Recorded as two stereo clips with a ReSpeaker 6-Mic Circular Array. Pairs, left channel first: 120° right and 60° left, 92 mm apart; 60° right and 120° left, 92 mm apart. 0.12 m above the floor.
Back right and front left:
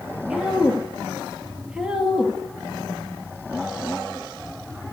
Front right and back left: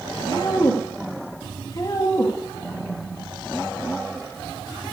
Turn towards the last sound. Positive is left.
turn(degrees=-20)